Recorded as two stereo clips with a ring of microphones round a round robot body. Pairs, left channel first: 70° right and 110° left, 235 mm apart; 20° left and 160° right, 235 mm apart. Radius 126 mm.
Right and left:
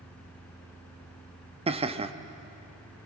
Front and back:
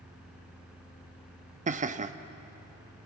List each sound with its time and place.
1.7 s laughter: 165° left, 0.8 m